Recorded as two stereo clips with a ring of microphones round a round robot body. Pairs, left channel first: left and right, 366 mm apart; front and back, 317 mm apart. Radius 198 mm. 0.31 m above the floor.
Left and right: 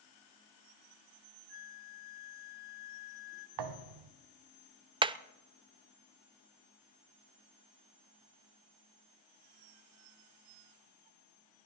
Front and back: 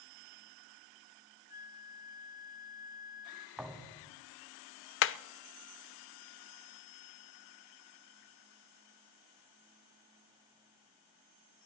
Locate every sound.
1.5 s a flute: 65° left, 2 m
3.6 s a thud: 90° right, 1.4 m
5.0 s hammering: 20° right, 0.6 m